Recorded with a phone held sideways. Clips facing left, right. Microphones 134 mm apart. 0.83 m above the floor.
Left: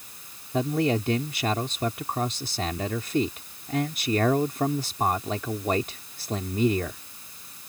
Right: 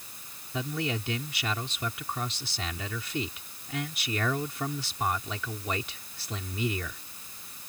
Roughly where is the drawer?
I don't hear a drawer.